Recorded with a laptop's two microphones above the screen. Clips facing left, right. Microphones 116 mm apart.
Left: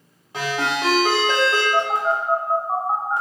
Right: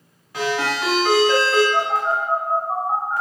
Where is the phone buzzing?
20° left (ahead or behind), 0.7 m.